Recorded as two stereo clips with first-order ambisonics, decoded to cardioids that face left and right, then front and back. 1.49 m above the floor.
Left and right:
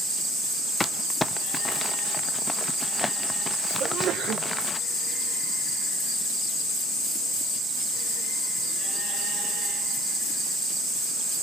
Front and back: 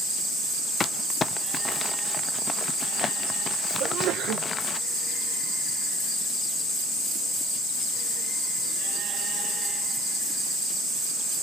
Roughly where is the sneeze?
Behind right.